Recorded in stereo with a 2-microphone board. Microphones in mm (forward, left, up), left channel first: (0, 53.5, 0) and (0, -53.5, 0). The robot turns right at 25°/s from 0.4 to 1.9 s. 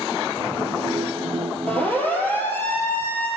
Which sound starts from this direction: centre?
A siren, at 1.7 s.